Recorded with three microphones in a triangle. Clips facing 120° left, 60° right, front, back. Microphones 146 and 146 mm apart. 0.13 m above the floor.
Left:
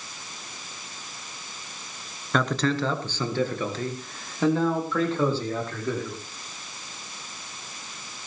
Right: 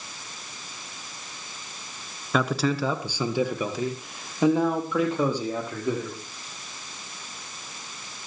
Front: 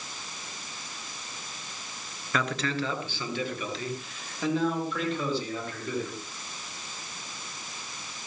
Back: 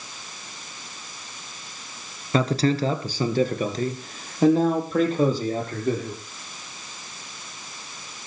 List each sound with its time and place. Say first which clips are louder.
2.3 s a man speaking: even, back 8 dB; 140° right, 1.4 m; by 6.2 s 135° right, 5.5 m